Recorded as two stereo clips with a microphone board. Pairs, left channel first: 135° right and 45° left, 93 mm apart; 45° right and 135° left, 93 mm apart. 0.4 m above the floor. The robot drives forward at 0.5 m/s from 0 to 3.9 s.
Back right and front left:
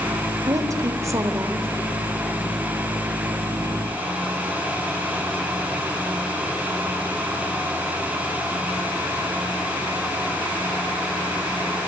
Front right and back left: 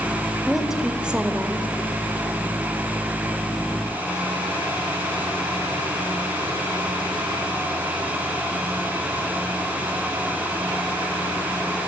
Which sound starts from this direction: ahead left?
A woman speaking, at 0.5 s.